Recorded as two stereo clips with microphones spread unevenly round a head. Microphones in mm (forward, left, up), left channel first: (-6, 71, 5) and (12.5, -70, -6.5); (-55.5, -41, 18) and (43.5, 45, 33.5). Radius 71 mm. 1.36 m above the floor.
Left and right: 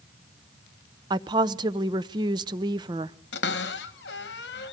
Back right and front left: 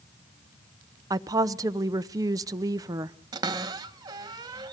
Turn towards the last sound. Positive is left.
turn(degrees=105)